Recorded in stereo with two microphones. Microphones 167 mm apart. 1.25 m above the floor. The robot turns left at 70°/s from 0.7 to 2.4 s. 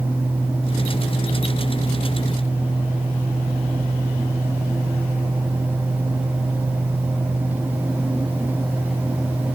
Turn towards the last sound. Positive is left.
No sound to turn to.